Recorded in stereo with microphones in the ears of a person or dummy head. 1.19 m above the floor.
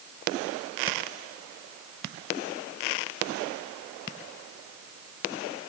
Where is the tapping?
No tapping in this recording.